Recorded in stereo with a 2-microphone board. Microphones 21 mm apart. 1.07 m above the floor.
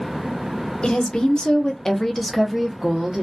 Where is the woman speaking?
50° left (ahead or behind), 1.0 m; by 3.2 s 30° right (ahead or behind), 0.8 m.